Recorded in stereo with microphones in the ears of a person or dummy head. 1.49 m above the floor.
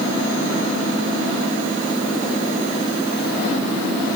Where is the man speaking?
I don't hear a man speaking.